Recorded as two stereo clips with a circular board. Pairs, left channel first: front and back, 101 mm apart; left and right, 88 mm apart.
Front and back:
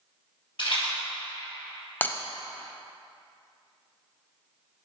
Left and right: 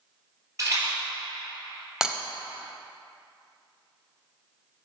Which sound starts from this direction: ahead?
Breaking glass, at 2.0 s.